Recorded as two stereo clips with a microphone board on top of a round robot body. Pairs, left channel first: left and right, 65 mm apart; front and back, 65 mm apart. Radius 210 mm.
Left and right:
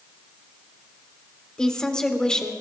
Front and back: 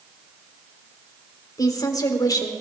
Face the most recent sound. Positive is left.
turn(degrees=10)